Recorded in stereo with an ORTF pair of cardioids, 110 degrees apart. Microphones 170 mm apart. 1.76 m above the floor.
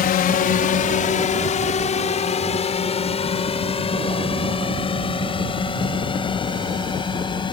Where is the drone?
60° left; by 7.5 s 30° left.